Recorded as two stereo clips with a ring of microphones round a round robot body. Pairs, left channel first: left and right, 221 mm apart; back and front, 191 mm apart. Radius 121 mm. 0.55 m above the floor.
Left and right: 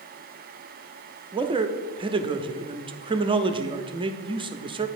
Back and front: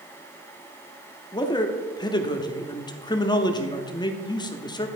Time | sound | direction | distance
1.3 | a man speaking | 135° right | 0.7 m